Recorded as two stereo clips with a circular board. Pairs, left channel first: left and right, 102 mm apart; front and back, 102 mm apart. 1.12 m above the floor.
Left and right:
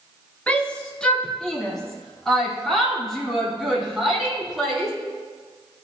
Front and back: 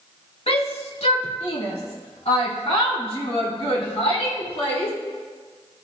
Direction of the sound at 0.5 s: 10° left.